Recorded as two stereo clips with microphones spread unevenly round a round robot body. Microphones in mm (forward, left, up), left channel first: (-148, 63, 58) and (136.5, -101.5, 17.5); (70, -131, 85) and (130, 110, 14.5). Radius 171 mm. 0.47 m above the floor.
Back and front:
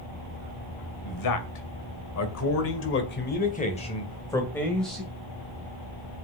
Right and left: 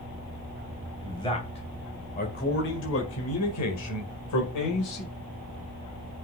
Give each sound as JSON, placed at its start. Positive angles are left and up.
{"t": 1.0, "sound": "a man speaking", "azimuth_deg": 175, "distance_m": 2.5}